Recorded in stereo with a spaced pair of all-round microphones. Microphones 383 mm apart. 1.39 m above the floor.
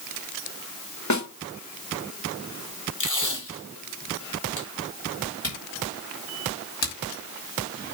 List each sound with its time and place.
1.1 s a snare drum: 50° left (ahead or behind), 1.3 m
3.0 s tape being pulled: 55° left (ahead or behind), 2.5 m
5.4 s a camera shutter: 45° left (ahead or behind), 4 m